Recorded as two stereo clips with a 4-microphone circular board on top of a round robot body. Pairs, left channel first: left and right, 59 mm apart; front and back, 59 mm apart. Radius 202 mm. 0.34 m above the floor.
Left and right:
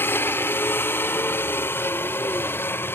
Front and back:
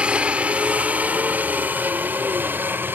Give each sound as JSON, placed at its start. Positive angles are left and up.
{"t": 0.0, "sound": "a helicopter", "azimuth_deg": 120}